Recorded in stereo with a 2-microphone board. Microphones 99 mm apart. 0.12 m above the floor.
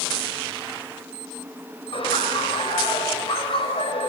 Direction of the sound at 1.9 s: 70° left (ahead or behind).